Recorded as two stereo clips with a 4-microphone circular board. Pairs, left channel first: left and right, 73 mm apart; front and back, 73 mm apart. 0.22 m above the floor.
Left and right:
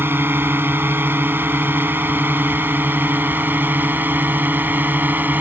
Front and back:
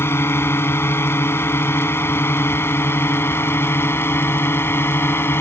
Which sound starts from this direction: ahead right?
A drone, at 0.0 s.